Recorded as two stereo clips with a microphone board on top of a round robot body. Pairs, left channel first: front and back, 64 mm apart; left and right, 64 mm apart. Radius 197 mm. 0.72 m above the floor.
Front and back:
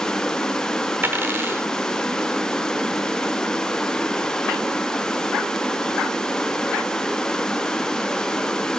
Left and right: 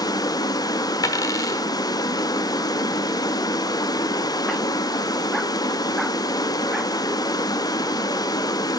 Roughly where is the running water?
Left.